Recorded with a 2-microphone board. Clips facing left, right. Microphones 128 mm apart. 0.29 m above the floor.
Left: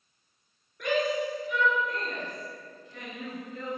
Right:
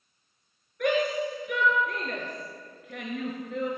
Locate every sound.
0.8 s a shout: 60° right (ahead or behind), 4.5 m; by 3.7 s 75° right (ahead or behind), 5.5 m